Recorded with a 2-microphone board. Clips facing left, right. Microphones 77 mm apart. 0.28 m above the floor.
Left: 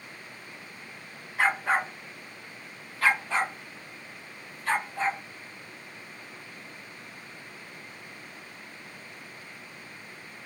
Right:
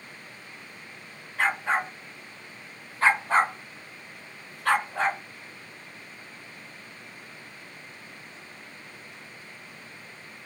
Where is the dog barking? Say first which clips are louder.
Even; 10° left (ahead or behind), 1.3 m; by 5.2 s 80° right, 1.2 m.